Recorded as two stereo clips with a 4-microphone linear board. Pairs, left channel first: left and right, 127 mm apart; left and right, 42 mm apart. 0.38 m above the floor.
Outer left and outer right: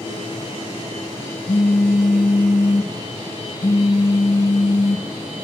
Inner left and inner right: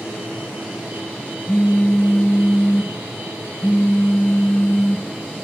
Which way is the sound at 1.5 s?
80° left.